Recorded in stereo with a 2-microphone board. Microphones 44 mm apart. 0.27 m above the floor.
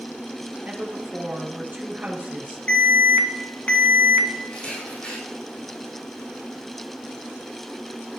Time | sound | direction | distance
0.6 | a woman speaking | 40° right (ahead or behind) | 4.5 m
2.7 | an alarm | 30° left (ahead or behind) | 2.5 m
4.5 | a camera shutter | 25° left (ahead or behind) | 6.5 m